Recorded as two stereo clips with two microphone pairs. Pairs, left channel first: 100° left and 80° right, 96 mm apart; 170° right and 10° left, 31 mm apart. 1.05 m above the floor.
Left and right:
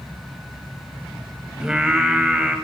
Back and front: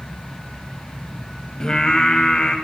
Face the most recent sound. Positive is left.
turn(degrees=-150)